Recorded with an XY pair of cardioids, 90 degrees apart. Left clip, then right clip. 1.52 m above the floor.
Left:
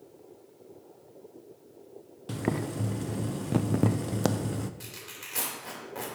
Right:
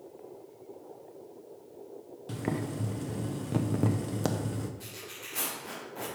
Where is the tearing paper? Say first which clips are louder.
Even; 65° left, 3.5 m.